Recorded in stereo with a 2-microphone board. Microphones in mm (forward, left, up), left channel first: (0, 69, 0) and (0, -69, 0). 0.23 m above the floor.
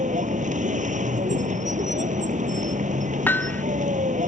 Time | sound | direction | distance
0.0 | a vehicle | 65° right (ahead or behind) | ?
3.3 | hammering | 15° left (ahead or behind) | ?